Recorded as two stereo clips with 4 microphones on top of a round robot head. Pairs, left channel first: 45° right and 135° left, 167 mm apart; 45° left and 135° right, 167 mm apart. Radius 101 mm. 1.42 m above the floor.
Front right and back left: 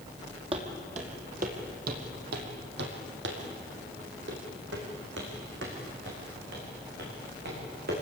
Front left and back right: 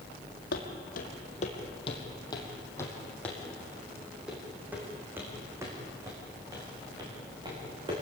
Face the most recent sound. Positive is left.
turn(degrees=165)